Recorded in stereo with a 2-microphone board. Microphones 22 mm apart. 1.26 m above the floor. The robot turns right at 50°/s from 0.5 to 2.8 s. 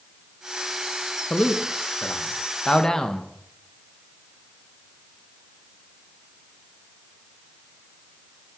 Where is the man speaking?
70° left (ahead or behind), 1.6 m; by 3.3 s 25° left (ahead or behind), 1.6 m.